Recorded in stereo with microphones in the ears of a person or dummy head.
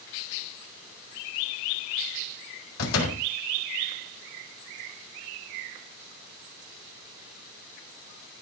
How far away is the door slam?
About 4 m.